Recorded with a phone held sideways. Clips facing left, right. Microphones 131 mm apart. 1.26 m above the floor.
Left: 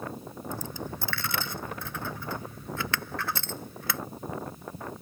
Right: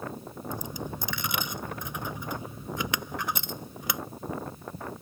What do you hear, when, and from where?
0.5 s a dropped coin: 15° right (ahead or behind)